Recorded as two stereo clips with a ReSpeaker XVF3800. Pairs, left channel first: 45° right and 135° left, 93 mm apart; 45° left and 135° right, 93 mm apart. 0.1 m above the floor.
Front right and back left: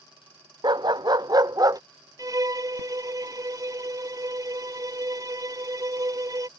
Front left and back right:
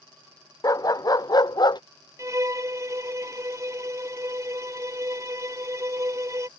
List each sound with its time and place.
0.6 s a dog barking: 95° left; by 1.8 s 85° left
2.2 s a violin: 175° left